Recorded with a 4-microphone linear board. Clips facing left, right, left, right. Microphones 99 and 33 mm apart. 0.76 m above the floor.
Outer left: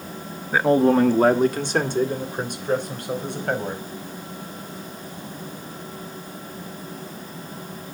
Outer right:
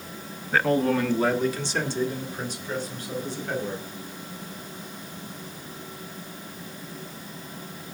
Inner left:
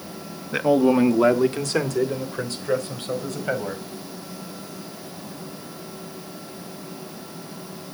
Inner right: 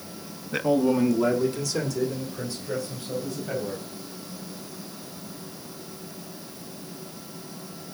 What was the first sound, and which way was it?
A man speaking, 10° left (ahead or behind).